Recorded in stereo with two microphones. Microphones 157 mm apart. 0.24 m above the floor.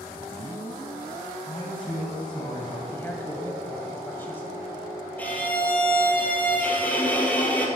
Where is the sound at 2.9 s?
15° left (ahead or behind), 1.2 m.